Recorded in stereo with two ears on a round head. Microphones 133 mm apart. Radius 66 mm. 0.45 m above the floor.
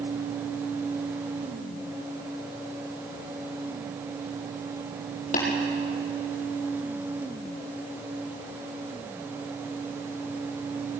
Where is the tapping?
55° left (ahead or behind), 6.5 m.